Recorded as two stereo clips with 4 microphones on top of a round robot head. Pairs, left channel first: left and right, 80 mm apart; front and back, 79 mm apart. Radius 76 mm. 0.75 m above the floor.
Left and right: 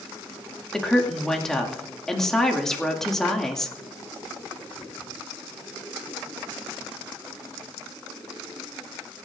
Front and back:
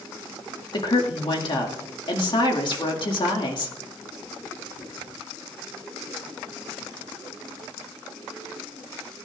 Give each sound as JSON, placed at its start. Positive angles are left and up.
{"t": 0.7, "sound": "a woman speaking", "azimuth_deg": 5, "distance_m": 2.0}